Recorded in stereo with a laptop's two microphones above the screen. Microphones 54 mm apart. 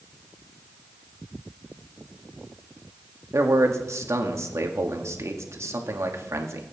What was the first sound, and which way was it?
A man speaking, 65° right (ahead or behind).